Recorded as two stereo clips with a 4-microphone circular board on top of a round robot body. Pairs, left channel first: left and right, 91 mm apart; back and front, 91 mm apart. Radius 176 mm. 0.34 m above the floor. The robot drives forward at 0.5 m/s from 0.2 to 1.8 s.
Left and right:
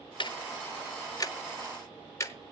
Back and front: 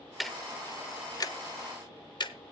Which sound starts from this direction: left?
Ticking, at 0.2 s.